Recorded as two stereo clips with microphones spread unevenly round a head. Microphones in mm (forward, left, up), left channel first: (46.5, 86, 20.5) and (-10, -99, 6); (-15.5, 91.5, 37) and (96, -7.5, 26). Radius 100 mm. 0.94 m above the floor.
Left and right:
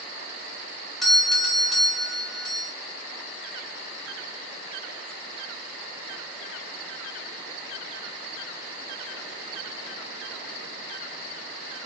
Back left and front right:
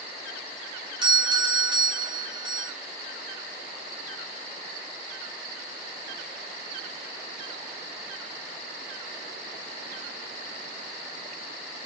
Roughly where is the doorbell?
Ahead.